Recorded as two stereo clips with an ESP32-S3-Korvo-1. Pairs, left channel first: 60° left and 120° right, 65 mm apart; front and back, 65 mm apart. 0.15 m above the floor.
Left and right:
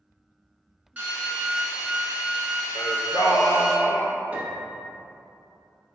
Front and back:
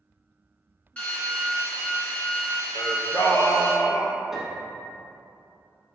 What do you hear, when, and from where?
1.0 s a drill: 65° right, 1.2 m
2.8 s singing: 35° left, 0.5 m
4.3 s a piano: 100° right, 0.6 m